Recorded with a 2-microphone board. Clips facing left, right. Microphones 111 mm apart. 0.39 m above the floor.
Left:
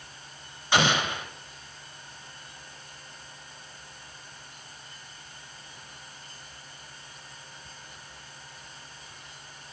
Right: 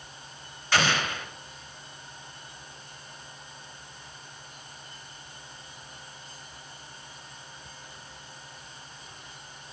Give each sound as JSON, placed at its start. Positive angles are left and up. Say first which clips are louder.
{"t": 0.7, "sound": "an explosion", "louder": "left 2 dB", "side_deg": 20, "distance_m": 0.6}